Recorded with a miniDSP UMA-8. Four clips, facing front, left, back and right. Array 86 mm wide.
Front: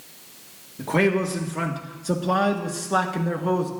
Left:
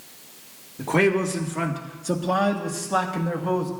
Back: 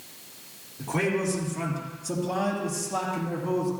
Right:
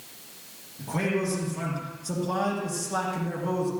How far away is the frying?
No frying in this recording.